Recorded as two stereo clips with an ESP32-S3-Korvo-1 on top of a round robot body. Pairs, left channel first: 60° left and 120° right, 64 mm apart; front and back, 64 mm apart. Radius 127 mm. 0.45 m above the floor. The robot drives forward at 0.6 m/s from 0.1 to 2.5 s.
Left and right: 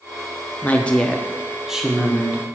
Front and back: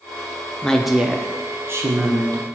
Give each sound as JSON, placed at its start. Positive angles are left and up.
{"t": 0.6, "sound": "a woman speaking", "azimuth_deg": 55, "distance_m": 0.7}